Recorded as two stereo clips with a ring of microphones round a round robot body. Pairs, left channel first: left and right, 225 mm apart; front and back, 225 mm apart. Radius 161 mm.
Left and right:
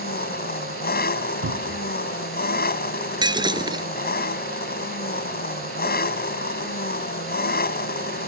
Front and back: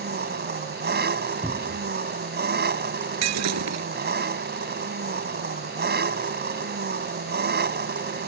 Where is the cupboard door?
100° right.